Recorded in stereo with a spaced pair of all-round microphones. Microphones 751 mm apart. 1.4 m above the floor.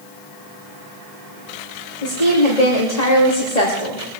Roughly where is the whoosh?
I don't hear a whoosh.